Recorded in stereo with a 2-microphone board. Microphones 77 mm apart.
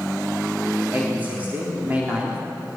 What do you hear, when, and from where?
0.9 s a man speaking: 25° right (ahead or behind), 4 m